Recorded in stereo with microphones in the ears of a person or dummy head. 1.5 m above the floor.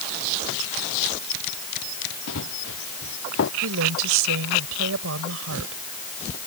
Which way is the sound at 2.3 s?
75° left (ahead or behind).